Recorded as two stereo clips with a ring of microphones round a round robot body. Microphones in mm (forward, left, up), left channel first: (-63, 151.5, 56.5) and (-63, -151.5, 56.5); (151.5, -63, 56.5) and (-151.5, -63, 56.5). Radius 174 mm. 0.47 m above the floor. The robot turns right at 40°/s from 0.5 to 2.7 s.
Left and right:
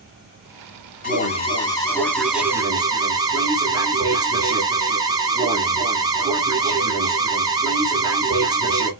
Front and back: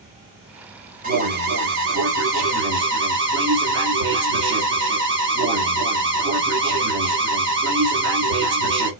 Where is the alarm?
135° left, 1.5 m; by 8.9 s 160° right, 1.5 m.